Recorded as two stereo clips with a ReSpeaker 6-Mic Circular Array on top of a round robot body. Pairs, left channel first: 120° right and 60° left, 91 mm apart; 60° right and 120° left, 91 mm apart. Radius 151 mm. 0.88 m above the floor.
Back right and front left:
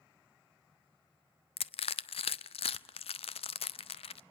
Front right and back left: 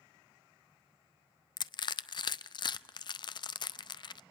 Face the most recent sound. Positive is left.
turn(degrees=-100)